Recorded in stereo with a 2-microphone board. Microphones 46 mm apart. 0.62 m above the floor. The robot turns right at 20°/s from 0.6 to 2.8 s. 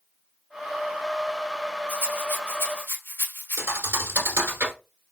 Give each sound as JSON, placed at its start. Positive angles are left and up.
{"t": 1.9, "sound": "a rattle", "side_deg": 45, "distance_m": 2.5}
{"t": 3.6, "sound": "a thud", "side_deg": -65, "distance_m": 1.7}